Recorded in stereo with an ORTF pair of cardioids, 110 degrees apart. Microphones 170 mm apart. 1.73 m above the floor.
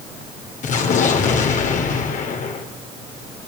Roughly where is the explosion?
Ahead left.